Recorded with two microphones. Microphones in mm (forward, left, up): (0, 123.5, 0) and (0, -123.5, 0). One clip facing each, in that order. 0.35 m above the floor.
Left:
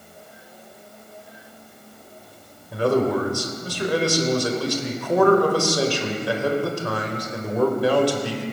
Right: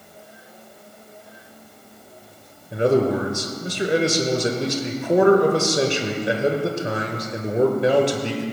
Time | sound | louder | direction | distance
2.7 | a man speaking | right 2 dB | 20° right (ahead or behind) | 1.1 m